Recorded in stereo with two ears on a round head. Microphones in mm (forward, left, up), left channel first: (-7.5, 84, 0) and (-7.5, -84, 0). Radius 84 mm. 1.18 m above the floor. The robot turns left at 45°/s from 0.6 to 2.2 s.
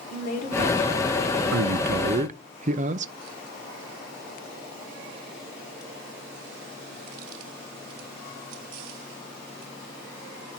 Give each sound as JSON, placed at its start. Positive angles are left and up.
{"t": 0.1, "sound": "a woman speaking", "azimuth_deg": 50, "distance_m": 4.0}
{"t": 1.5, "sound": "a man speaking", "azimuth_deg": -105, "distance_m": 0.6}